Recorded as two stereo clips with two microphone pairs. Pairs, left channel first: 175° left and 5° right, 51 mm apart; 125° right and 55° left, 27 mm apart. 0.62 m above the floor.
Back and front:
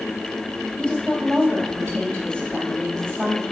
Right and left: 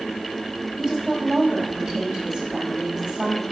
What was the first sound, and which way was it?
A woman speaking, 110° left.